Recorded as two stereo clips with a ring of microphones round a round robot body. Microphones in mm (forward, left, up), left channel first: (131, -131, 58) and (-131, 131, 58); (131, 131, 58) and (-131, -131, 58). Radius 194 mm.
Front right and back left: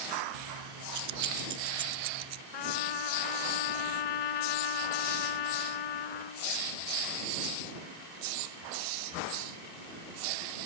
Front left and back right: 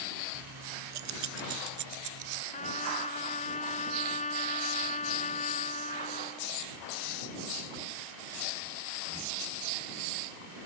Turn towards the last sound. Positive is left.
turn(degrees=-25)